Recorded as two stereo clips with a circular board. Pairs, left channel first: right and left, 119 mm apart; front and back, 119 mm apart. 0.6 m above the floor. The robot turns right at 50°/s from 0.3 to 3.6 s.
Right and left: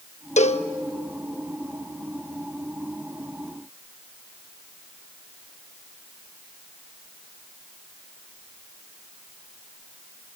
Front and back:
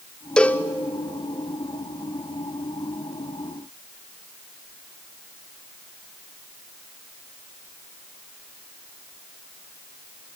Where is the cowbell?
80° right, 0.6 m; by 0.7 s 65° right, 0.6 m.